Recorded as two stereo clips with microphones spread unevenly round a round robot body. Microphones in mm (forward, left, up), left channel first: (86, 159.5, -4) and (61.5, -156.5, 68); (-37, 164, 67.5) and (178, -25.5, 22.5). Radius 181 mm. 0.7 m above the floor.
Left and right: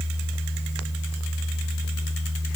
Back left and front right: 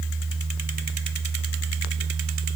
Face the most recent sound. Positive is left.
No sound to turn to.